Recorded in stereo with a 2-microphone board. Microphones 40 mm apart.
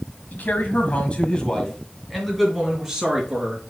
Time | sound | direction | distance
0.3 | a man speaking | 50° left (ahead or behind) | 1.8 m